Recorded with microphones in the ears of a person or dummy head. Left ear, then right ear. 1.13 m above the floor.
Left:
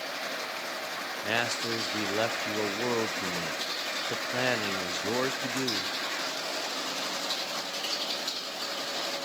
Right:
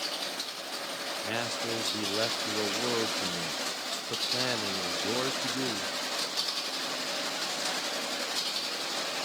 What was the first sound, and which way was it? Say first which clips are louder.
A man speaking: left 5 dB; 20° left (ahead or behind).